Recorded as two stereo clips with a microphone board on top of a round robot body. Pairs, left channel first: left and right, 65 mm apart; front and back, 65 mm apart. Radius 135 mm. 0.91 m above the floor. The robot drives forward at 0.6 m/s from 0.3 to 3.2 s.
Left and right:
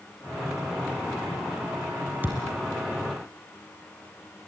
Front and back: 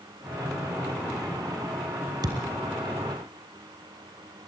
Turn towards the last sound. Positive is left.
turn(degrees=-160)